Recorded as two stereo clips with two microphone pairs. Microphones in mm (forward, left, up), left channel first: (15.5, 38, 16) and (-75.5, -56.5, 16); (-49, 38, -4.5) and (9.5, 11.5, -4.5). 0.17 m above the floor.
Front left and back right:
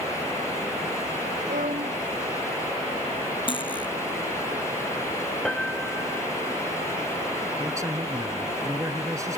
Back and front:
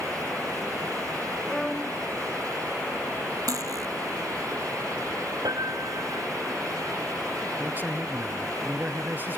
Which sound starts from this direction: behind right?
A violin, at 1.5 s.